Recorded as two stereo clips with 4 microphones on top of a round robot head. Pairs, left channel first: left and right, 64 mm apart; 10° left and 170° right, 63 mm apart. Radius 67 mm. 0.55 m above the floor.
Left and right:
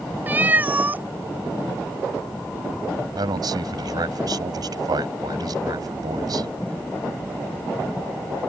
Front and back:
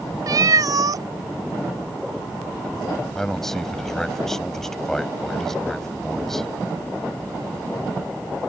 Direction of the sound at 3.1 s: 75° right.